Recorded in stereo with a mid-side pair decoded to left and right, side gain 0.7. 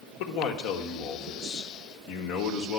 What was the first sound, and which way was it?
A man speaking, 60° left.